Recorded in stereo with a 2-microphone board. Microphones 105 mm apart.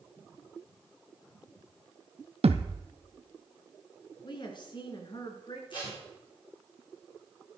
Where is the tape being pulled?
50° left (ahead or behind), 8 m.